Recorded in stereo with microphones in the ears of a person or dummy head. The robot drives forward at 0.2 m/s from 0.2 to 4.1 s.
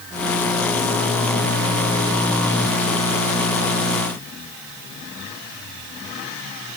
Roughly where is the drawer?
No drawer in this recording.